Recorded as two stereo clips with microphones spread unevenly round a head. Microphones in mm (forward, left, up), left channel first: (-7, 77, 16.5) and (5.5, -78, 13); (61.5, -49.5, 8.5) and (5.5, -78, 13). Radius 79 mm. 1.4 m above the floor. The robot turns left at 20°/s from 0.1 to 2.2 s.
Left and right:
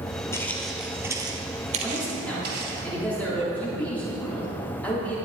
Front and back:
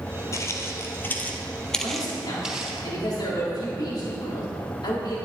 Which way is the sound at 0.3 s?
30° left.